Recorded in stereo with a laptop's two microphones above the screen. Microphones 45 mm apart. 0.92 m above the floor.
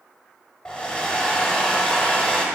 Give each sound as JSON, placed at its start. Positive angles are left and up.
{"t": 0.7, "sound": "a hair dryer", "side_deg": 20, "distance_m": 0.9}